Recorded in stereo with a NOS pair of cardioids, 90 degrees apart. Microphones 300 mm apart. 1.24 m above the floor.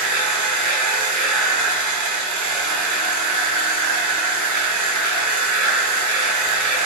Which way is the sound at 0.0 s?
65° right.